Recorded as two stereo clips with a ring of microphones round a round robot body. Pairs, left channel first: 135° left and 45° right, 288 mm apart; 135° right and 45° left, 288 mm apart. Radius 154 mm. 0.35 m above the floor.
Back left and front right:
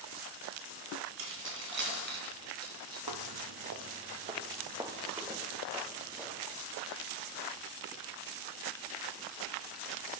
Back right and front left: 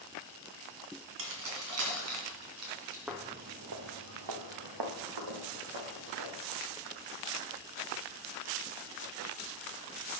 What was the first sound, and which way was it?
Keys jangling, straight ahead.